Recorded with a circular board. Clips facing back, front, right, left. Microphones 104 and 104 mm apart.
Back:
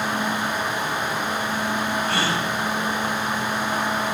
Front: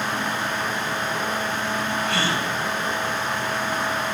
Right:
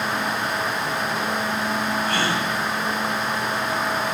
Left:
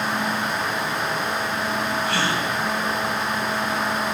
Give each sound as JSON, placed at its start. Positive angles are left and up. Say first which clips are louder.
{"t": 2.0, "sound": "a gasp", "louder": "back 1 dB, even", "azimuth_deg": -135, "distance_m": 4.5}